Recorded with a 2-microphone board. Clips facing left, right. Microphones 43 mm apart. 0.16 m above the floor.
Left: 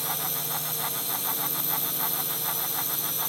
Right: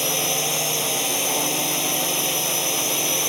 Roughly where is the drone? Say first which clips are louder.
Right 10 dB; right.